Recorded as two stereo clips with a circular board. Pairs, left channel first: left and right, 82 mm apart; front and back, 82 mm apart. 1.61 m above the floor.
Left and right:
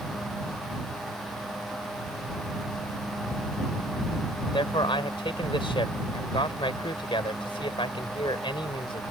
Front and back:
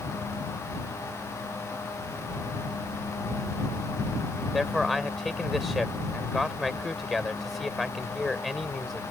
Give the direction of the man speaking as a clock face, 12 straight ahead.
9 o'clock.